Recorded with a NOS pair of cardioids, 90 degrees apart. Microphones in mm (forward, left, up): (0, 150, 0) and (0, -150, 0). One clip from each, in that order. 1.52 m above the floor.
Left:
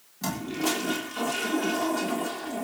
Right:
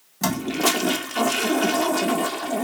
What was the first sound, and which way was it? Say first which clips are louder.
A toilet flushing: right 7 dB; 55° right.